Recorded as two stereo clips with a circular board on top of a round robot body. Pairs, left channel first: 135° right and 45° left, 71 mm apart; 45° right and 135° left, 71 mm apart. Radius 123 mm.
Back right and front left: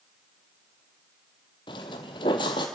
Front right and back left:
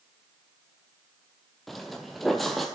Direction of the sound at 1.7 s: 135° right.